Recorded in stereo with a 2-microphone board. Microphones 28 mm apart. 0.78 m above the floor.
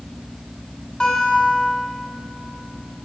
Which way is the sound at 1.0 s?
20° left (ahead or behind).